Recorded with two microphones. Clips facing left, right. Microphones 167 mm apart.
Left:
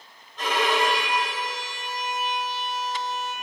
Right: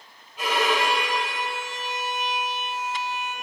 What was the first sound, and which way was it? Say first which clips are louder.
A violin: even; 10° right (ahead or behind).